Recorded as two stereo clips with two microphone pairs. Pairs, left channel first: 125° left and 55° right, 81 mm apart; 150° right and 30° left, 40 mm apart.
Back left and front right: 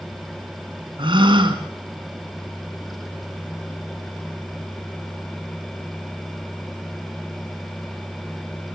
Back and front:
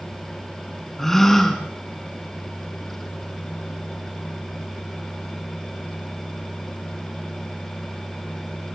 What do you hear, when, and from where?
1.0 s a gasp: 65° right, 2.5 m